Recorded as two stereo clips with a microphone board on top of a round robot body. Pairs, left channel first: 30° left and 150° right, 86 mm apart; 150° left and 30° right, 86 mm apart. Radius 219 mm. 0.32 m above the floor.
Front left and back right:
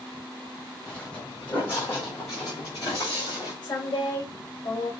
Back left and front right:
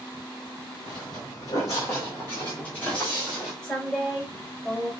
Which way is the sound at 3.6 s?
65° left.